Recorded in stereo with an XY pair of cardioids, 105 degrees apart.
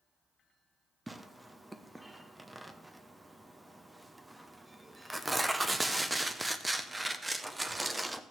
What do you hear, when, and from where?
1.1 s tearing paper: 15° right, 0.8 m